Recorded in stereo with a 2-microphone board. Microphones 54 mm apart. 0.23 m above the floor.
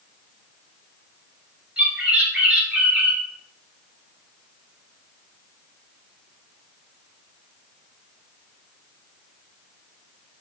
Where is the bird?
25° right (ahead or behind), 2.0 m.